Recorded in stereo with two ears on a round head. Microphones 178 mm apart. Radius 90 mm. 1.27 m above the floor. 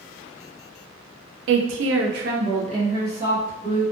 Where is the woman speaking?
65° right (ahead or behind), 0.6 m; by 3.8 s 5° right (ahead or behind), 1.3 m.